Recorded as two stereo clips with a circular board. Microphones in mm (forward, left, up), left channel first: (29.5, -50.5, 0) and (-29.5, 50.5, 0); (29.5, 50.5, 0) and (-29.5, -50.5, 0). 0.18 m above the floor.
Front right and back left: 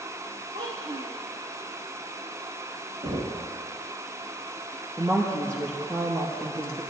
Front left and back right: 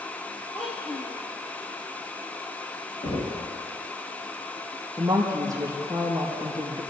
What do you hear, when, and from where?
0.5 s a child speaking: 130° left, 3.5 m
3.0 s knocking: 90° left, 4.5 m
5.0 s a woman speaking: straight behind, 4 m